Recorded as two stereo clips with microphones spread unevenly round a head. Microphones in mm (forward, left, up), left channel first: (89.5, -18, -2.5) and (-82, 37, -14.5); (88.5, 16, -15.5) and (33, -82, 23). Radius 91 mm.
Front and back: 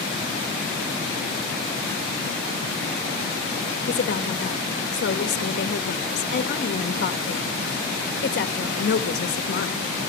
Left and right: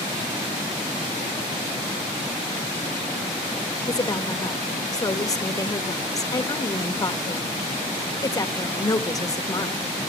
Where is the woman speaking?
10° left, 1.8 m.